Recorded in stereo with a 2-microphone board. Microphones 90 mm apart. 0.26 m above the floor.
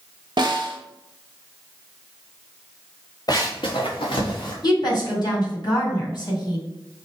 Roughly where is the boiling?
I don't hear boiling.